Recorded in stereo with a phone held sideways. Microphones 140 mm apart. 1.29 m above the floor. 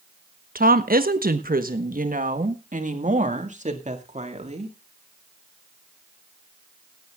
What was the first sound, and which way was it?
A woman speaking, 80° right.